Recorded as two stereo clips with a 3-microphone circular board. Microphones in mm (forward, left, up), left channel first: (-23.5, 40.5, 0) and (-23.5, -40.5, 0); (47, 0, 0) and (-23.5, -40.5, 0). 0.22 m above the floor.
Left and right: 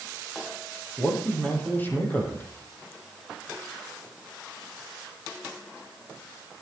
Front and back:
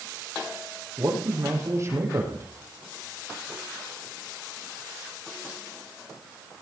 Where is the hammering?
No hammering in this recording.